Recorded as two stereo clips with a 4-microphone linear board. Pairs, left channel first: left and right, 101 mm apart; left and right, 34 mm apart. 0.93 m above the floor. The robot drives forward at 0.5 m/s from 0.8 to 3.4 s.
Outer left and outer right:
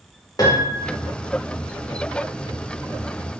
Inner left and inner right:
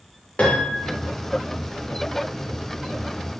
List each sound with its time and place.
0.4 s a piano: 40° left (ahead or behind), 0.8 m; by 0.9 s 35° left (ahead or behind), 0.9 m